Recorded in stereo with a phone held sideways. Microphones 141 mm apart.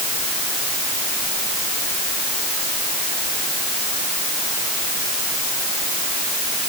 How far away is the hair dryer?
No hair dryer in this recording.